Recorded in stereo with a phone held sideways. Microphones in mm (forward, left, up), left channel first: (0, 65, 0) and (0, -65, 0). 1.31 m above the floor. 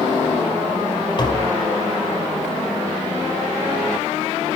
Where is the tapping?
35° left (ahead or behind), 1.9 m.